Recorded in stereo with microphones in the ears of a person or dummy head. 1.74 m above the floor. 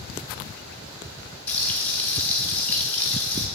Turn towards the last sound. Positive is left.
turn(degrees=10)  # may be behind; listen again after turning